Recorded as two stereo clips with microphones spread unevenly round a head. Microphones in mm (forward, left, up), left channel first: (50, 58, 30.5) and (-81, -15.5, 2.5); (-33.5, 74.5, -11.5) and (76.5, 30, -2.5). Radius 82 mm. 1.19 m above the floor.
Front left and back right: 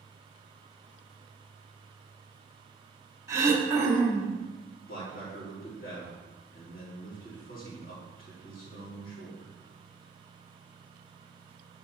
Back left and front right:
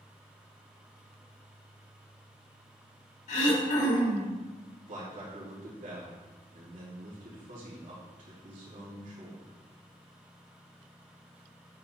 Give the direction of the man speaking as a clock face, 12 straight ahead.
12 o'clock.